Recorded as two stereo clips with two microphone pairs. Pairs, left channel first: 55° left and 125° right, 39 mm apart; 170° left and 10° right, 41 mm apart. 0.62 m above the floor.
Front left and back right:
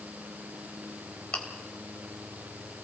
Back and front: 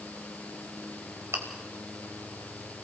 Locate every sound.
1.3 s chewing: 5° right, 3 m